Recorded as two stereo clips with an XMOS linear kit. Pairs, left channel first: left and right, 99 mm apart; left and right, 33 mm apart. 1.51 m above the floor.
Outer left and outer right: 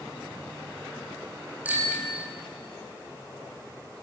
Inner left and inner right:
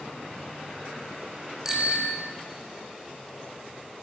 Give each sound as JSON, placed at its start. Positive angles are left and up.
{"t": 1.6, "sound": "a bicycle bell", "side_deg": -15, "distance_m": 6.5}